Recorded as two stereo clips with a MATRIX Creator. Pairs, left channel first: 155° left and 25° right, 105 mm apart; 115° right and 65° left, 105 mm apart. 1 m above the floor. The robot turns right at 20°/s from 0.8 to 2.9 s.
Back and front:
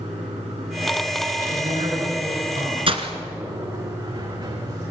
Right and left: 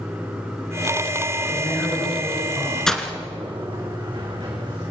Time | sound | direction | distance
0.0 | running water | 20° right | 9.5 m
1.5 | a man speaking | 50° right | 7 m
2.9 | breaking glass | 30° right | 1.6 m